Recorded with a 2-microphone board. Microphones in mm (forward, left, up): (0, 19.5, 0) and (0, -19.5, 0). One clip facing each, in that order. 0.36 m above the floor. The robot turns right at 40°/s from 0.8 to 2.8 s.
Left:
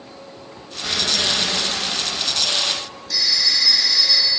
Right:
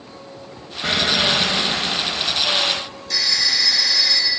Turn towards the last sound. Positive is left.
turn(degrees=-65)  # may be behind; listen again after turning